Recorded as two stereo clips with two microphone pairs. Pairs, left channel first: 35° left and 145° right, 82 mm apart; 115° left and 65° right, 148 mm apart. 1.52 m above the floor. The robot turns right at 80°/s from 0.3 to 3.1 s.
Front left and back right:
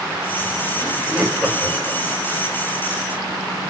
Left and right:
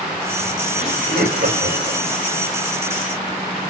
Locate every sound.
0.8 s laughter: 90° right, 5 m; by 2.0 s 10° left, 5 m